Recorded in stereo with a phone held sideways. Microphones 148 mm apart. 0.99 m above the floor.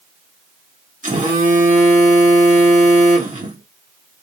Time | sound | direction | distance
1.0 | a phone buzzing | 60° right (ahead or behind) | 1.8 m